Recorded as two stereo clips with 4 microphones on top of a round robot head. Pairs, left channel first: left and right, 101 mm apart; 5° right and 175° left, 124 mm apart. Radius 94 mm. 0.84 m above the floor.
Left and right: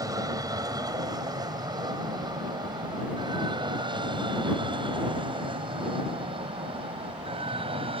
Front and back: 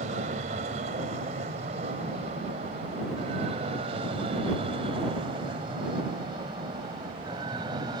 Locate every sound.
0.0 s an aircraft: 145° right; by 8.0 s 120° right